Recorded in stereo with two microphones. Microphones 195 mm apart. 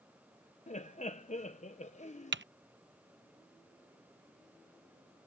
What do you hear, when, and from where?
0.7 s laughter: 40° left (ahead or behind)
2.3 s typing on a keyboard: 70° right (ahead or behind)